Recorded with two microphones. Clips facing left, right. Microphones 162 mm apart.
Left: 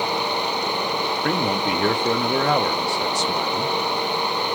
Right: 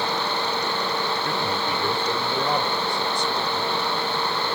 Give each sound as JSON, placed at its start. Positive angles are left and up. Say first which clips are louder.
{"t": 1.2, "sound": "a man speaking", "louder": "left 4 dB", "side_deg": 80, "distance_m": 0.9}